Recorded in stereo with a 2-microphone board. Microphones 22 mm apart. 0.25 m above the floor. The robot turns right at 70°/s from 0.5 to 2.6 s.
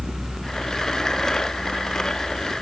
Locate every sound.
Only background noise.